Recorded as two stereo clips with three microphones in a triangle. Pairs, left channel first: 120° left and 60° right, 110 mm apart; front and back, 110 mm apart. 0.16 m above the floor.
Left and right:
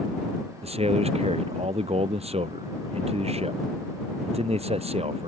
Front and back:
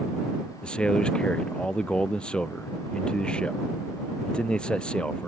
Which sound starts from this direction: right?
A man speaking, at 0.6 s.